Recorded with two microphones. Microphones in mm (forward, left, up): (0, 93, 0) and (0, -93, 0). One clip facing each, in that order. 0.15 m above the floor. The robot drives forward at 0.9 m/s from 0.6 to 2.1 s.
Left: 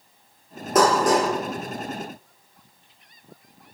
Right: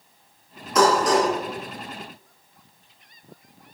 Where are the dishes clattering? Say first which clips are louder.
Even; 55° left (ahead or behind), 2.0 m; by 1.3 s 60° left (ahead or behind), 1.8 m.